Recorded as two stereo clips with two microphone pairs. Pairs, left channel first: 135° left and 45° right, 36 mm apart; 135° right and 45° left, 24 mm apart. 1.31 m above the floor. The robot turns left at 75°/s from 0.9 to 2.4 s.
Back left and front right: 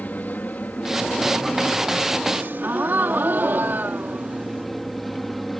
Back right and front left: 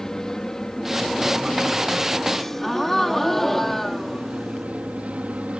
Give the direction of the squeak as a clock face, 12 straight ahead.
No squeak in this recording.